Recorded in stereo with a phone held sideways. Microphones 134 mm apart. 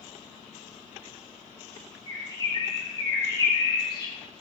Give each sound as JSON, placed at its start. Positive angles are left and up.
{"t": 2.1, "sound": "a bird", "side_deg": 35, "distance_m": 3.5}